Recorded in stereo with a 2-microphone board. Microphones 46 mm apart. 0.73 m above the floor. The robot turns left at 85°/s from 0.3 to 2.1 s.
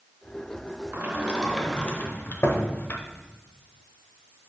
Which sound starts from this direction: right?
A sliding door, at 0.9 s.